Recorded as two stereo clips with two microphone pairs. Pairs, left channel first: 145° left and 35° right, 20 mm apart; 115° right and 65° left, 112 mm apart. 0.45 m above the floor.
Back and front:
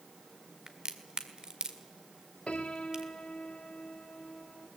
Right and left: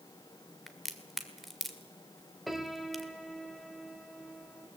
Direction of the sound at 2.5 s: 155° left.